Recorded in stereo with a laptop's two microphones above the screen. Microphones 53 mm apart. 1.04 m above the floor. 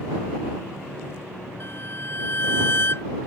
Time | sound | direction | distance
1.6 | a violin | 45° left (ahead or behind) | ?